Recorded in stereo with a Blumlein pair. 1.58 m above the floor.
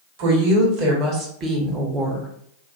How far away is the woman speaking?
About 1.5 m.